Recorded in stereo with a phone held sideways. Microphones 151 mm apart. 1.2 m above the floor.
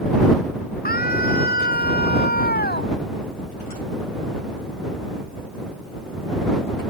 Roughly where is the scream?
Left.